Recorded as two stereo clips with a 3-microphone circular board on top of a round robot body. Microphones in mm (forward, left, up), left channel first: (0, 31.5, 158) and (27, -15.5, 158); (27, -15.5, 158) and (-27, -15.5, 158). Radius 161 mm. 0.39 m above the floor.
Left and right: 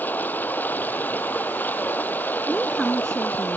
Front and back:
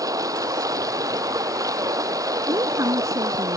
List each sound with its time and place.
0.0 s running water: straight behind
2.5 s a woman speaking: 160° right